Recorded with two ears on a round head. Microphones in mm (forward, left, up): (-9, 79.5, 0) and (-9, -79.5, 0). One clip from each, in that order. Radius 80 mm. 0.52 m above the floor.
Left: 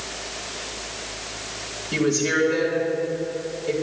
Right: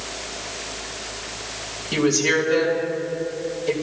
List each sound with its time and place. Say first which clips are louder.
1.9 s a woman speaking: right 2 dB; 40° right (ahead or behind), 3 m